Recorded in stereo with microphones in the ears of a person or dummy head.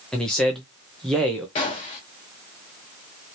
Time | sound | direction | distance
0.1 | a man speaking | 5° left (ahead or behind) | 0.5 m
1.6 | a gunshot | 25° left (ahead or behind) | 0.7 m